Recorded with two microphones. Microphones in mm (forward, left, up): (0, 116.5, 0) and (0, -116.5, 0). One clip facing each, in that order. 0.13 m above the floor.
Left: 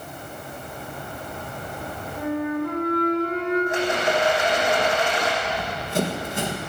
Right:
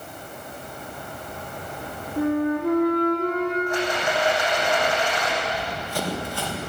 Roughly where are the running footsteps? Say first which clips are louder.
Left 1 dB; left.